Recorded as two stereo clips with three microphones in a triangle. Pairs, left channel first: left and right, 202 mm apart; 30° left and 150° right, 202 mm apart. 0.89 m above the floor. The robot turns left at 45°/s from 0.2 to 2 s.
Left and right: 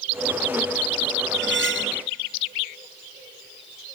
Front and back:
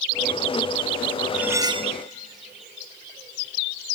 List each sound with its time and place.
1.3 s cutlery clinking: 65° right, 0.5 m; by 2.0 s 90° right, 0.5 m